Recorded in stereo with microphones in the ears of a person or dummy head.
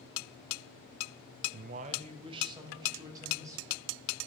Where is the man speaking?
50° right (ahead or behind), 0.5 m; by 3.9 s 15° right (ahead or behind), 2 m.